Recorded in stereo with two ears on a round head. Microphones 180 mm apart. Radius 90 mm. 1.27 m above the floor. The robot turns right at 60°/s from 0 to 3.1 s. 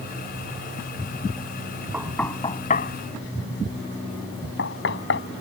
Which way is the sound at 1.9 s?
10° right (ahead or behind).